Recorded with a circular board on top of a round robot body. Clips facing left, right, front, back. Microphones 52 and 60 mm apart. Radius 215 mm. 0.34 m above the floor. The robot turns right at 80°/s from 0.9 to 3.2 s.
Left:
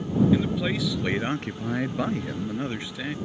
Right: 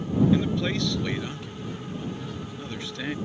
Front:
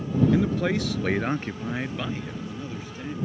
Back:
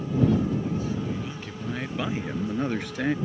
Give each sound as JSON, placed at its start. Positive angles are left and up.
{"t": 0.3, "sound": "a man speaking", "azimuth_deg": 5}